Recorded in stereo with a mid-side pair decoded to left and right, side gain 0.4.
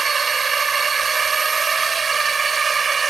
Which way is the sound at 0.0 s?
35° right.